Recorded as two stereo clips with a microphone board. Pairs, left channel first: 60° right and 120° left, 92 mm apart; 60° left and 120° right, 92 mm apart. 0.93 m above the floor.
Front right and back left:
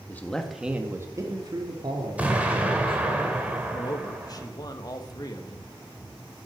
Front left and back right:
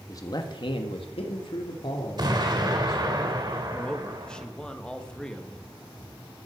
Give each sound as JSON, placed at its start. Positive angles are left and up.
{"t": 0.1, "sound": "a man speaking", "azimuth_deg": 10, "distance_m": 1.7}
{"t": 2.2, "sound": "an explosion", "azimuth_deg": -165, "distance_m": 2.0}
{"t": 3.7, "sound": "a man speaking", "azimuth_deg": -20, "distance_m": 1.6}